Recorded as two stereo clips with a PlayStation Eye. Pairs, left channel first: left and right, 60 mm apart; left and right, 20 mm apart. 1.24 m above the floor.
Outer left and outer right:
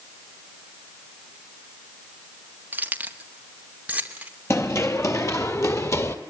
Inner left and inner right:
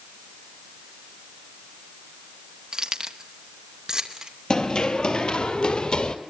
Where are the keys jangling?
30° right (ahead or behind), 1.3 m; by 4.3 s 25° right (ahead or behind), 2.5 m.